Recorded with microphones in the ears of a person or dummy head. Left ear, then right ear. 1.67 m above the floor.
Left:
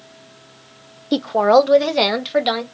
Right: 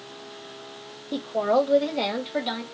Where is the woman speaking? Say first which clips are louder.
Left 9 dB; 80° left, 0.6 m; by 2.6 s 65° left (ahead or behind), 1.2 m.